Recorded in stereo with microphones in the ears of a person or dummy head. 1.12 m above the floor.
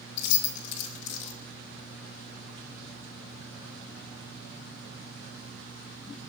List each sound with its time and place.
0.2 s keys jangling: 75° left (ahead or behind), 0.7 m